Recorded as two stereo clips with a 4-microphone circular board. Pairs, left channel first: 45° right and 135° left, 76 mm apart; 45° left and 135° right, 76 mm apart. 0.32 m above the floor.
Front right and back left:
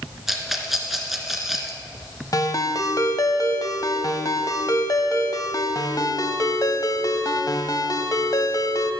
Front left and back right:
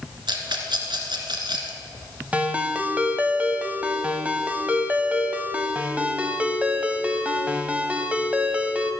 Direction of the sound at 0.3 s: 140° right.